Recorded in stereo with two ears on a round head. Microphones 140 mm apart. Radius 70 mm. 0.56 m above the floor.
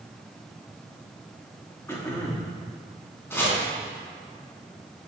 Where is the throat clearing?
15° left (ahead or behind), 0.9 m.